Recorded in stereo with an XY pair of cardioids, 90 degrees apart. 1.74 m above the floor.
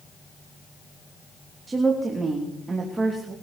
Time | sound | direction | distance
1.7 | a woman speaking | 30° right | 3 m